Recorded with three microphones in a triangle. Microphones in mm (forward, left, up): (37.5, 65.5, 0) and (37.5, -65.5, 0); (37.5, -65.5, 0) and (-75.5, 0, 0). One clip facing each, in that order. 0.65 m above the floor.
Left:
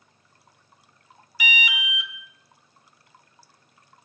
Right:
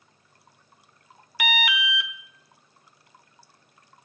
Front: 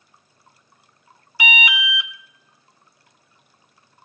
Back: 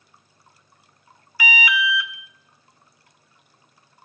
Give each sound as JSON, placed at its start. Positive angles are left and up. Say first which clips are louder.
{"t": 1.4, "sound": "an alarm", "louder": "right 4 dB, back 1 dB", "azimuth_deg": -95, "distance_m": 0.7}